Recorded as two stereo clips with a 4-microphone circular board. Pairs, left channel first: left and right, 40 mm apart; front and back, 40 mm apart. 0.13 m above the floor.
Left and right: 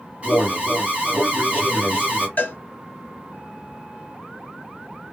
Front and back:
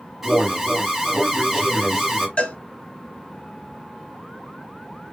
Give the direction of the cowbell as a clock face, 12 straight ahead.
10 o'clock.